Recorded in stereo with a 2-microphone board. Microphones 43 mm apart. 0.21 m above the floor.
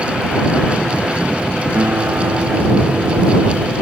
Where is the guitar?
70° right (ahead or behind).